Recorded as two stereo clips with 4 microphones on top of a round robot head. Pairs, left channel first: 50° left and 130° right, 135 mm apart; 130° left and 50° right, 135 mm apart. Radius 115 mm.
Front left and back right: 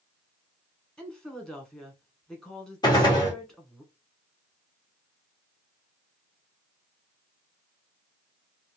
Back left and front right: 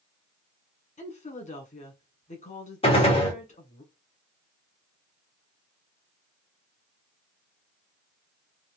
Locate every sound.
1.0 s a woman speaking: 135° left, 1.7 m
2.8 s a gunshot: 100° left, 1.8 m